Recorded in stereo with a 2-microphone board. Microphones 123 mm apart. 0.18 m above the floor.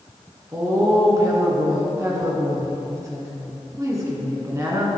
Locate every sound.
0.5 s a woman speaking: 25° right (ahead or behind), 1.9 m